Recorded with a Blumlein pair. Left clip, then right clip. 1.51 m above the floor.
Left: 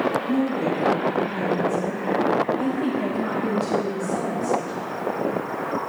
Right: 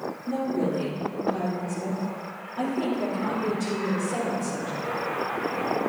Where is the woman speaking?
65° right, 4 m; by 4.8 s 50° right, 6 m.